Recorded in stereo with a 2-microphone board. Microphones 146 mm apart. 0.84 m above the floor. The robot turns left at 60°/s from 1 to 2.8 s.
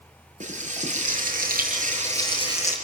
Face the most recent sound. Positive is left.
turn(degrees=-170)